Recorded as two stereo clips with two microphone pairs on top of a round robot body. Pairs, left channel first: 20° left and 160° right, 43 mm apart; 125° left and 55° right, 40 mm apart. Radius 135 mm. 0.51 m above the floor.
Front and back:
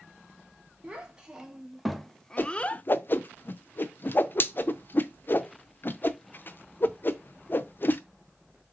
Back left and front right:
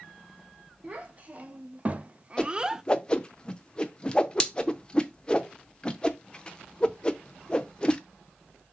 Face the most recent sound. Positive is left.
turn(degrees=55)